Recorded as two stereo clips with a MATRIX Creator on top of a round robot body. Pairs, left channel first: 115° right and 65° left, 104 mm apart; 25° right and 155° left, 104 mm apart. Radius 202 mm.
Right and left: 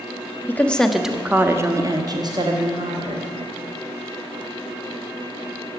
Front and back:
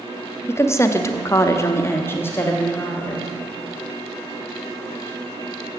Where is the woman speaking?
60° right, 1.2 m; by 3.4 s 50° left, 2.5 m.